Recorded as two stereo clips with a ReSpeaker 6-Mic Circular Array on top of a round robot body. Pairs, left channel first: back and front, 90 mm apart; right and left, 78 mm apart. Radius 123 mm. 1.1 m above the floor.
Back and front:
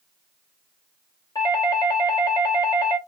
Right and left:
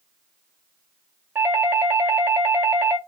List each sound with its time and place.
1.4 s a doorbell: 145° left, 1.9 m